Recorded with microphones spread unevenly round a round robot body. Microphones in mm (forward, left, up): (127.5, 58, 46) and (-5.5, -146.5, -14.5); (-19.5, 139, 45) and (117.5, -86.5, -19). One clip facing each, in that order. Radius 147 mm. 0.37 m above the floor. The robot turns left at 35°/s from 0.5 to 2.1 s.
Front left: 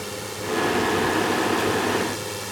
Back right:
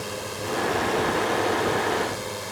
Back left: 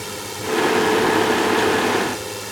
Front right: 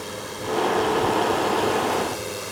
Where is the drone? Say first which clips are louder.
Even, back left 2 dB; 115° left; by 2.5 s 60° left.